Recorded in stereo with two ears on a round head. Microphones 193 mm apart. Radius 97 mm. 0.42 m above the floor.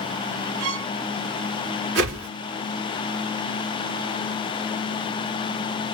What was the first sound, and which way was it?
A violin, 80° right.